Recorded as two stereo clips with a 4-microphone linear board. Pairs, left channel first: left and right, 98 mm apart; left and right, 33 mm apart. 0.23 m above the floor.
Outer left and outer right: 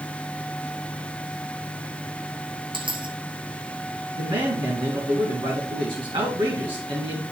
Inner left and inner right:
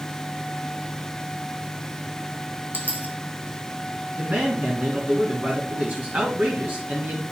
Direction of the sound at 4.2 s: 60° right (ahead or behind).